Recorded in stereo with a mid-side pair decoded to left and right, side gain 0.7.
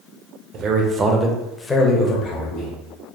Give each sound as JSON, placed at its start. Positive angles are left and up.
{"t": 0.5, "sound": "a man speaking", "azimuth_deg": -50, "distance_m": 0.8}